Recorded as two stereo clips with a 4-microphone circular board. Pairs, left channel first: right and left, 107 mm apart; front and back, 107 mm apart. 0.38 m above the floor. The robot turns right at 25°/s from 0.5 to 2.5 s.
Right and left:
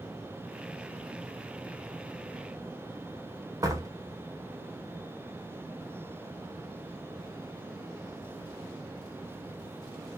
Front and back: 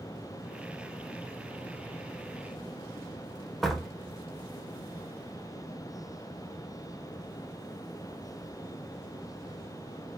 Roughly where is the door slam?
Left.